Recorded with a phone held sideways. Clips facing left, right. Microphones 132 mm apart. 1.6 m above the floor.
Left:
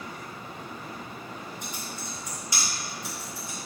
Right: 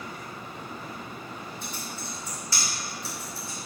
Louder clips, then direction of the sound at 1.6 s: Even; 15° left (ahead or behind).